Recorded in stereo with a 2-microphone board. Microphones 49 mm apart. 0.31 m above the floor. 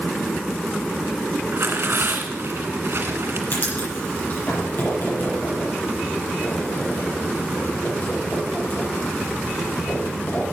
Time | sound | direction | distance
1.5 | tearing paper | 60° right (ahead or behind) | 2 m
3.5 | writing | 50° left (ahead or behind) | 8.5 m